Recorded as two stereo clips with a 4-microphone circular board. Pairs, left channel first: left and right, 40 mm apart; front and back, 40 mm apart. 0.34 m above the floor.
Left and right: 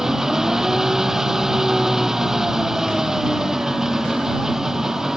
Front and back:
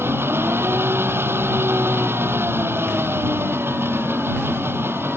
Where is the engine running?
165° right.